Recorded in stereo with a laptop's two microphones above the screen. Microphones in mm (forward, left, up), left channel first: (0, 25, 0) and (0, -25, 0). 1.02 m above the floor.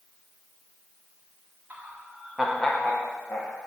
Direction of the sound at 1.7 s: 35° right (ahead or behind).